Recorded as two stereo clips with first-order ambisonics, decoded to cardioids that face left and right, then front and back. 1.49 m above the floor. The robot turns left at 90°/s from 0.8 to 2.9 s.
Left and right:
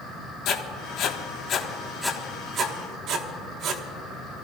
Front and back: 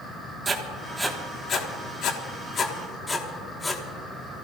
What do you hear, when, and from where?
0.5 s writing: 115° left, 1.2 m; by 3.8 s 75° right, 1.2 m